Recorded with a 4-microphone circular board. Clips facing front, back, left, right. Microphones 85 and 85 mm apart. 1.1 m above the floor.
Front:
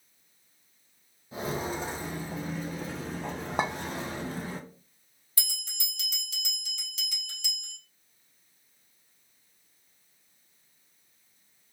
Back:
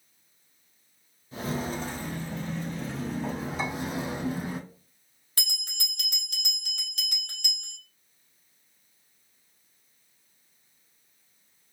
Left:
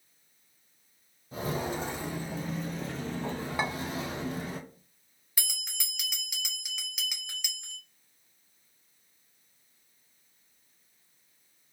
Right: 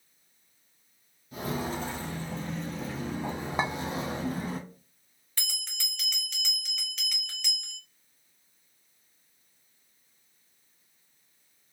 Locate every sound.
1.3 s footsteps: 50° left, 1.4 m; by 4.6 s 120° right, 1.5 m
3.6 s a clink: 20° right, 0.5 m
5.4 s a bell: 170° left, 0.7 m